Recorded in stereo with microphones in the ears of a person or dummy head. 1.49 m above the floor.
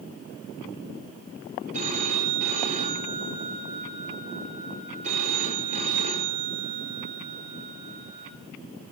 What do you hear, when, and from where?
1.7 s a phone ringing: 45° right (ahead or behind), 2.5 m